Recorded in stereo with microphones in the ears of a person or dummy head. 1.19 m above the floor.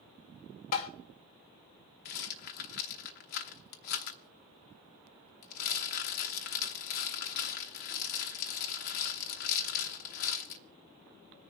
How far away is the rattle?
About 0.9 m.